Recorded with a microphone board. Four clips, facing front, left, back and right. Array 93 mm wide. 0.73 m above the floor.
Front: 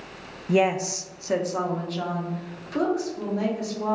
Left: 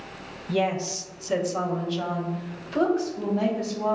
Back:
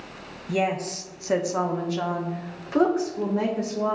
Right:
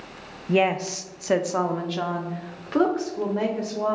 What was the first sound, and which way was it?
A woman speaking, 50° right.